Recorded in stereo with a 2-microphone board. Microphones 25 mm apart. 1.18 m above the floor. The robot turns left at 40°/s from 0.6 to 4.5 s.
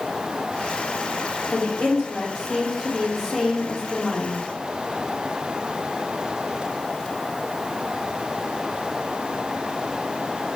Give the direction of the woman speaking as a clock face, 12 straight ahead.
9 o'clock.